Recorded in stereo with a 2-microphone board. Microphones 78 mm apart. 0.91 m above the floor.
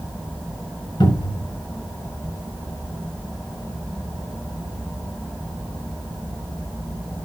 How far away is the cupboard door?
About 6 m.